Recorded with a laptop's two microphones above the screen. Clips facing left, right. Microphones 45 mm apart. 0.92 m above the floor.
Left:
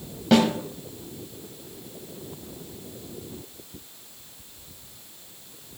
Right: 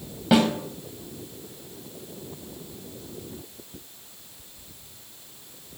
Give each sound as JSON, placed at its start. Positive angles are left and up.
{"t": 0.3, "sound": "a snare drum", "side_deg": -5, "distance_m": 1.7}